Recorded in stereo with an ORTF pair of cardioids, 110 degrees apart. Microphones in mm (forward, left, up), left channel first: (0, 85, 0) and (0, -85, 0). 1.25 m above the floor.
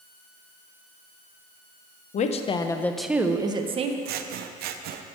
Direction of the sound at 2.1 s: 45° left.